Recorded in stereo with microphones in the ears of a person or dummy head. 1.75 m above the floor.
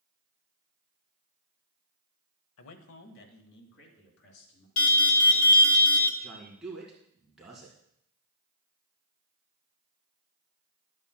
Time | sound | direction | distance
2.6 | a man speaking | 75° left (ahead or behind) | 0.8 m
4.8 | an alarm | 35° left (ahead or behind) | 1.0 m
6.2 | a man speaking | 5° right (ahead or behind) | 1.9 m